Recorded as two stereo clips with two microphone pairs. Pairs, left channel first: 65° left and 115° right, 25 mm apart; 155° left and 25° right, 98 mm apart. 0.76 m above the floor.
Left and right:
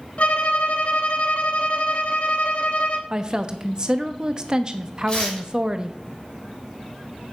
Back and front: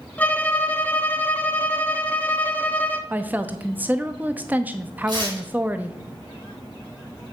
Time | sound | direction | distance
0.2 | a violin | 85° left | 0.9 m
3.1 | a woman speaking | 80° right | 0.9 m
5.1 | tearing paper | 15° left | 6 m